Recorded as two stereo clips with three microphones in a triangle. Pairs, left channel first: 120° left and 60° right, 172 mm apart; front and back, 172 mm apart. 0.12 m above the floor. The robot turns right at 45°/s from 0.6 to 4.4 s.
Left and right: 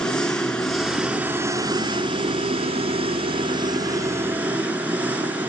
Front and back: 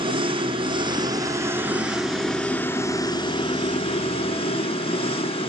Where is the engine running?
160° right, 1.2 m; by 5.5 s 10° left, 1.2 m.